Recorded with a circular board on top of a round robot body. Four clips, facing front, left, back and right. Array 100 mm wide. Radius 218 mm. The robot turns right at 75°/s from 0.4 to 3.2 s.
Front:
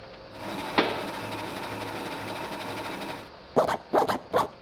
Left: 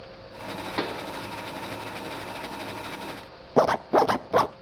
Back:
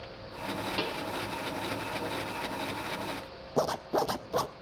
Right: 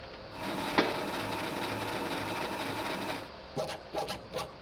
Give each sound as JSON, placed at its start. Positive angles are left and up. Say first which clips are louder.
{"t": 0.8, "sound": "a pop", "louder": "right 2 dB, front 8 dB", "azimuth_deg": -15, "distance_m": 1.3}
{"t": 3.6, "sound": "a zipper", "louder": "left 16 dB, front 6 dB", "azimuth_deg": 70, "distance_m": 0.5}